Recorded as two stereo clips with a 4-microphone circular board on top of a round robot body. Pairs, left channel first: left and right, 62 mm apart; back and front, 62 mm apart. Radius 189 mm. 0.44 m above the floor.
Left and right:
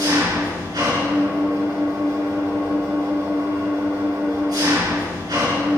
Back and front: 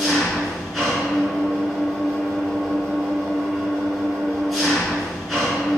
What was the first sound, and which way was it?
An engine running, 95° right.